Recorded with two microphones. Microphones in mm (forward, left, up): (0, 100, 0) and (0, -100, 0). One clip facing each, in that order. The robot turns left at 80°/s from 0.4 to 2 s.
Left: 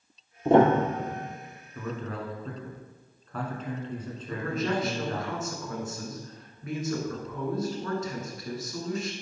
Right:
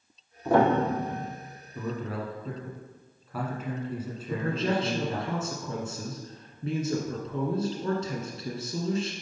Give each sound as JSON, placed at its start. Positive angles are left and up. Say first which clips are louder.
{"t": 0.5, "sound": "a piano", "louder": "left 3 dB", "azimuth_deg": 30, "distance_m": 0.8}
{"t": 1.8, "sound": "a man speaking", "louder": "right 2 dB", "side_deg": -15, "distance_m": 1.2}
{"t": 4.3, "sound": "a man speaking", "louder": "right 1 dB", "side_deg": -30, "distance_m": 1.1}